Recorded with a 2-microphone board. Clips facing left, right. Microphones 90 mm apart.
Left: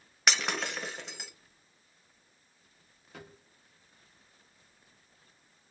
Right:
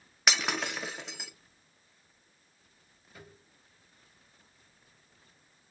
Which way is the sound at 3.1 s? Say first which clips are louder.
Left 3 dB; 75° left (ahead or behind).